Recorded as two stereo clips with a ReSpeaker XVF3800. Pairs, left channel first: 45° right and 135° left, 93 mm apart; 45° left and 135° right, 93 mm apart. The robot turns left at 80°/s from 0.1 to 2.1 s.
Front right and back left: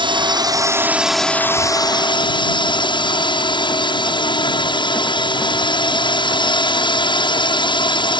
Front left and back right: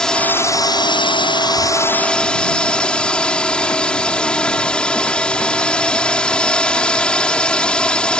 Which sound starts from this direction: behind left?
A drone, at 0.0 s.